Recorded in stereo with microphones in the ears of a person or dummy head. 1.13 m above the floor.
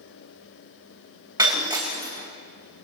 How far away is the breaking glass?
About 3 m.